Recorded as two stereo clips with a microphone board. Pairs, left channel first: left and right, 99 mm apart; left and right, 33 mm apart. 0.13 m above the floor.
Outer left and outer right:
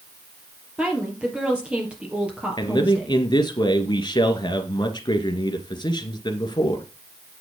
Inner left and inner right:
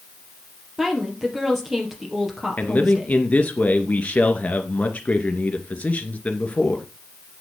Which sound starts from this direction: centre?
A woman speaking, at 0.8 s.